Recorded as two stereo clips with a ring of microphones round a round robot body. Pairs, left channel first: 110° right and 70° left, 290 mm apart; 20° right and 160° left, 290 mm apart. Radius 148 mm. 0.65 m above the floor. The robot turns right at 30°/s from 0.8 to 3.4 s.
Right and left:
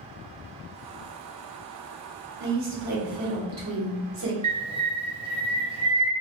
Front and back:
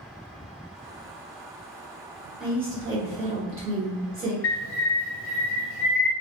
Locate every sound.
2.4 s a woman speaking: 70° left, 1.3 m; by 4.3 s 100° left, 1.3 m
4.4 s a bird: 5° left, 0.6 m